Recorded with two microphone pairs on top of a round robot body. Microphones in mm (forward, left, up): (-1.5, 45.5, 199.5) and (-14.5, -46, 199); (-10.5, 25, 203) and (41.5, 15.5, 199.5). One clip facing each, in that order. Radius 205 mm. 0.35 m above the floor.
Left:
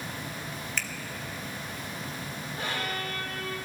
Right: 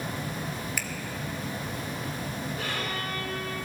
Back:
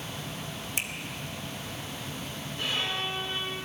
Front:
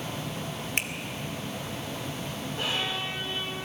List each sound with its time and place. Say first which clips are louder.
0.8 s a finger snap: even, front 4 dB; 20° right, 1.4 m
2.6 s a violin: right 1 dB, even; 25° left, 5 m